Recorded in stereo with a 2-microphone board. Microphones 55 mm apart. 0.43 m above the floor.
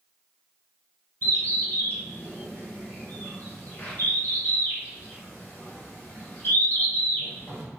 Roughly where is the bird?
Left.